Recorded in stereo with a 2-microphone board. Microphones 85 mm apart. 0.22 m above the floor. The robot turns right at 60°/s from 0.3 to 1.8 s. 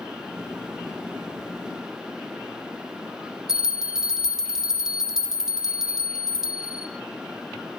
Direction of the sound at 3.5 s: 5° right (ahead or behind).